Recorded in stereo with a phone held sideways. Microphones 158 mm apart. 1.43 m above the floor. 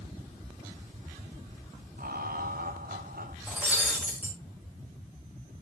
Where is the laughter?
70° right (ahead or behind), 1.4 m.